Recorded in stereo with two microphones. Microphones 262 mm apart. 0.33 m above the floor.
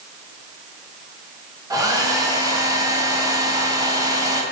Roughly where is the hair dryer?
Centre.